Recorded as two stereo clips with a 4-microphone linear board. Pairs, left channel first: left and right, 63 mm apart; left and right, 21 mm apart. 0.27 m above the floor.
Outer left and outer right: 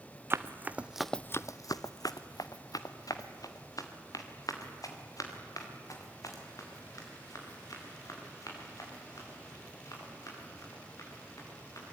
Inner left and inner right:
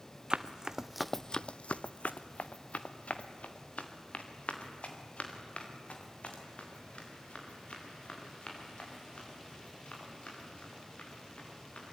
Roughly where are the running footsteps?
Right.